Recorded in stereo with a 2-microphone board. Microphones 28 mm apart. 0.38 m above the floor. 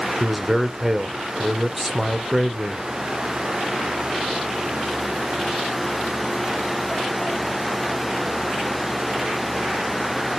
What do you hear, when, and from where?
0.2 s a man speaking: 10° right (ahead or behind), 0.8 m